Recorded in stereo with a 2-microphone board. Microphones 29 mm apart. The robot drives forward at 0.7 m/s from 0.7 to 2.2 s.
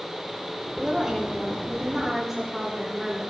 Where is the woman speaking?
15° right (ahead or behind), 7.5 m.